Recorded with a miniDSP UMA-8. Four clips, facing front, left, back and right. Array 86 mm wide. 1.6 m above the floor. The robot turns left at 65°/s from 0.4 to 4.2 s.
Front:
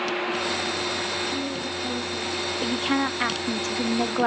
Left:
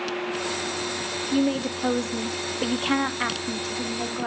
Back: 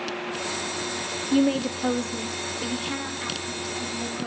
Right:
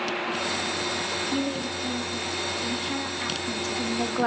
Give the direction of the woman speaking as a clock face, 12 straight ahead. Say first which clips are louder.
Left 8 dB, back 8 dB; 7 o'clock.